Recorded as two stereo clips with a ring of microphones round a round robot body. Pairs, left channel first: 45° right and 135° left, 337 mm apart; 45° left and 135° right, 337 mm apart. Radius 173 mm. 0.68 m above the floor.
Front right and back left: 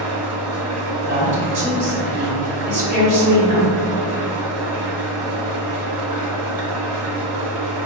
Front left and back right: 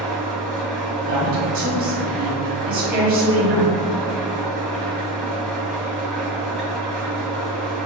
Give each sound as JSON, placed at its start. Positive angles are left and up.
{"t": 0.0, "sound": "an engine running", "azimuth_deg": 130, "distance_m": 1.0}
{"t": 1.0, "sound": "a woman speaking", "azimuth_deg": 175, "distance_m": 1.5}